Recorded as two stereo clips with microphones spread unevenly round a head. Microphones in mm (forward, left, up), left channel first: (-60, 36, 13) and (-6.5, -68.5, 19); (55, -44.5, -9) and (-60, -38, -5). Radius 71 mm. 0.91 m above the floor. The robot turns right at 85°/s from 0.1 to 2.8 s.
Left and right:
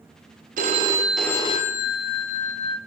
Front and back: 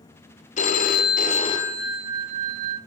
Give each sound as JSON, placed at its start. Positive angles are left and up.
{"t": 0.6, "sound": "a phone ringing", "azimuth_deg": -25, "distance_m": 0.5}